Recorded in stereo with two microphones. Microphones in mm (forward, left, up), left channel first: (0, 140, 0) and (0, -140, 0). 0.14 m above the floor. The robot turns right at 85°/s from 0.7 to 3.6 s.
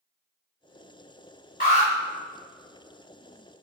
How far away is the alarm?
About 1.3 m.